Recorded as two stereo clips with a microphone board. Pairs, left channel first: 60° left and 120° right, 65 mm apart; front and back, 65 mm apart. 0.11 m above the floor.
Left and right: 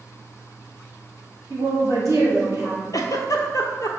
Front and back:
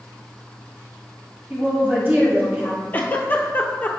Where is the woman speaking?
135° right, 1.5 m.